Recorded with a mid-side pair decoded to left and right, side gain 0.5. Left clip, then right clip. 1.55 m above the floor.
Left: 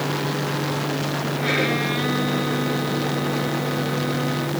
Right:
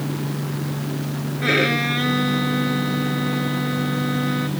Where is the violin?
30° right.